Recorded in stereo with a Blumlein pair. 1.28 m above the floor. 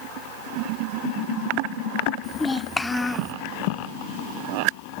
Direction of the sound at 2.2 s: 5° left.